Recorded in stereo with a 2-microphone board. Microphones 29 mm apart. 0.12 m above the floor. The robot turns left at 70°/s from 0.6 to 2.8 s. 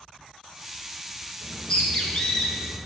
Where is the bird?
105° left, 1.9 m; by 2.8 s 10° left, 1.9 m.